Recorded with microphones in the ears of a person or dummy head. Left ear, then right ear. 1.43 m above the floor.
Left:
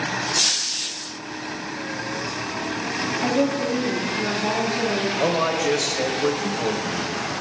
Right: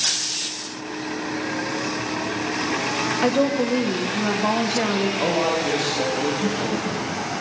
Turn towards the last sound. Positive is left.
turn(degrees=50)  # may be behind; listen again after turning